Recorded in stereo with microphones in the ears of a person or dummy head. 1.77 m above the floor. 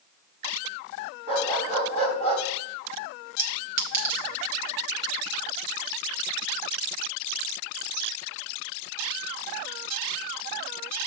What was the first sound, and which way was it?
A dog barking, 50° right (ahead or behind).